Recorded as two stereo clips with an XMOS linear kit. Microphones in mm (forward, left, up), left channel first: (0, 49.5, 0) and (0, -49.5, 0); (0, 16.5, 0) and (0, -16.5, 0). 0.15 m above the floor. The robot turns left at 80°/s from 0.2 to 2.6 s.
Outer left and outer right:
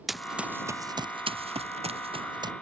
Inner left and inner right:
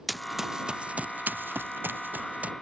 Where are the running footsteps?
Centre (ahead or behind); by 2.5 s 40° right (ahead or behind).